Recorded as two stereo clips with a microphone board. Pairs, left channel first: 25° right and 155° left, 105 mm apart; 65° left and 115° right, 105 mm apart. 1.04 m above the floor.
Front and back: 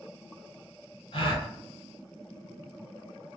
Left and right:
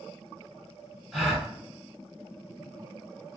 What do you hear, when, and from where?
1.1 s a gasp: 25° right, 1.6 m